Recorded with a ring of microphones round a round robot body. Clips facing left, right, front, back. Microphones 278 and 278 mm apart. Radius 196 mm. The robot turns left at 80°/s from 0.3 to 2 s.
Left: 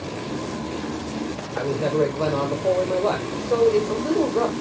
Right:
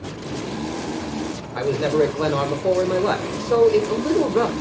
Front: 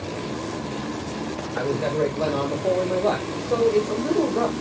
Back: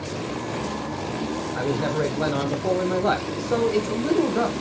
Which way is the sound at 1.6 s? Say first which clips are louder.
Right 3 dB, front 2 dB; 85° right.